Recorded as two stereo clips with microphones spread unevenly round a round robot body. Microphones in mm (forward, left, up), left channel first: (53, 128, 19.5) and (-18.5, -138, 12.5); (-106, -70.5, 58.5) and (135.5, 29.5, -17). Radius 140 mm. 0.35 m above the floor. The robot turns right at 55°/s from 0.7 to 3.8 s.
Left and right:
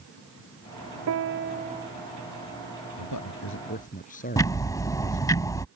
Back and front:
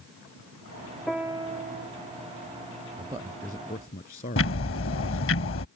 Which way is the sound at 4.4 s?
155° left.